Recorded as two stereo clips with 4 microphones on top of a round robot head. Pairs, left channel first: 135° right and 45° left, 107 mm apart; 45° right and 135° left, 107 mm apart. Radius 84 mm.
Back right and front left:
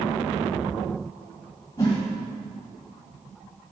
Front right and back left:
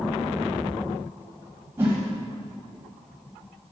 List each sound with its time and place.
1.8 s a whoosh: 170° right, 1.6 m